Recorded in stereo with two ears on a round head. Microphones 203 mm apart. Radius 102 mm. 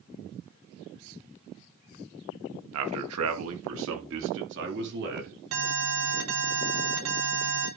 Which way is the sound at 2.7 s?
70° right (ahead or behind).